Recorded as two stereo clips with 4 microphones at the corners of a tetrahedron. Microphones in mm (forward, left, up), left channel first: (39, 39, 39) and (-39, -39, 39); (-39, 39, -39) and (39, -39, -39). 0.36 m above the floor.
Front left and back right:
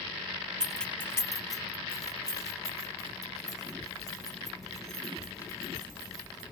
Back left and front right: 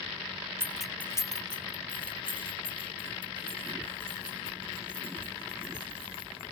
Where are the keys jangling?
60° right, 0.5 m; by 6.4 s 100° left, 5.5 m.